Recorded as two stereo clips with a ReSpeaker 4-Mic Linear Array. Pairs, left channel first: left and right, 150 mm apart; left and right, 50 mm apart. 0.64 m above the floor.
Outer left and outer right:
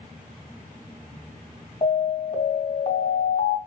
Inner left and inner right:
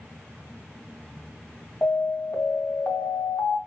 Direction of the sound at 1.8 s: 45° left (ahead or behind).